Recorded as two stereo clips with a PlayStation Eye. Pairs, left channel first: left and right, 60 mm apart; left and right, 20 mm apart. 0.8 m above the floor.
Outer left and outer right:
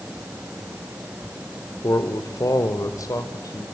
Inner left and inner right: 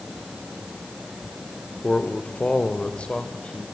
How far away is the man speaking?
About 2 m.